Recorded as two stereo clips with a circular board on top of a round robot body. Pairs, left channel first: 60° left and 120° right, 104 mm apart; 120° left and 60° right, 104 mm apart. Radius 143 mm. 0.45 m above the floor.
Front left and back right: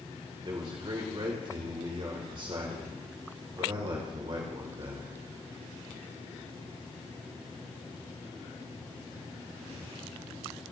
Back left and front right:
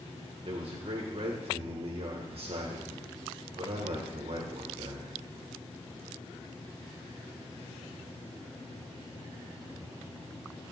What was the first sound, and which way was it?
A man speaking, 80° right.